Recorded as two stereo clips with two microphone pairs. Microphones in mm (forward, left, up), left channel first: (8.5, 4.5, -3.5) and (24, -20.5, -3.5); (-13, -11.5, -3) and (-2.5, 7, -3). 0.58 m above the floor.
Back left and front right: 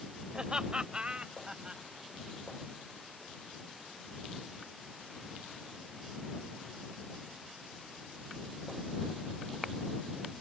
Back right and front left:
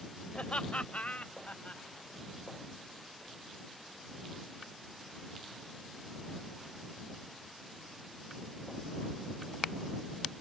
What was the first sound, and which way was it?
Laughter, 115° right.